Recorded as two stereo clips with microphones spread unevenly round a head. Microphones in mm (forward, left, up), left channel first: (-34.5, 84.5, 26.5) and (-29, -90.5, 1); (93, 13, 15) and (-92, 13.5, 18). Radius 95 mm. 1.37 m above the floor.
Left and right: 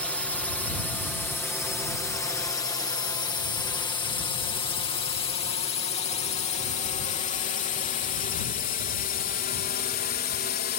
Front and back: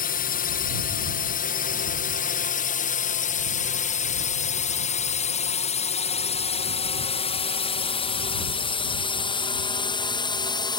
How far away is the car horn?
No car horn in this recording.